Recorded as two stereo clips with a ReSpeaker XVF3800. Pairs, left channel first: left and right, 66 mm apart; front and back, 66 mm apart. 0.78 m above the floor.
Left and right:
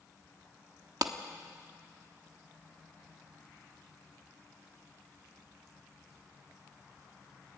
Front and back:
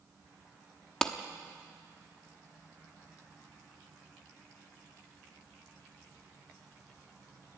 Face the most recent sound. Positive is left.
turn(degrees=-80)